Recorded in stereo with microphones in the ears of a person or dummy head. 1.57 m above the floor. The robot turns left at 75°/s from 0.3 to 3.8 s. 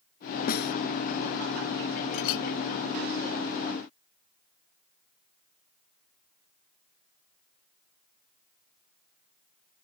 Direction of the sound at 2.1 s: 70° left (ahead or behind).